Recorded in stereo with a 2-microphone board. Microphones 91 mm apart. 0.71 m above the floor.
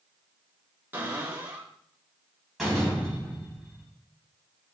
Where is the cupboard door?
20° right (ahead or behind), 2.0 m.